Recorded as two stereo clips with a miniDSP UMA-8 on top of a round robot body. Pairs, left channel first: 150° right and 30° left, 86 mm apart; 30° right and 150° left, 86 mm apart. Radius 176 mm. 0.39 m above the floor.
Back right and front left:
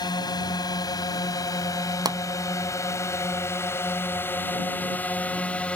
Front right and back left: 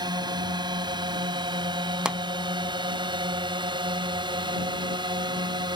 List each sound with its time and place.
0.0 s a drone: 175° left; by 5.8 s 135° left
2.0 s a pop: 70° left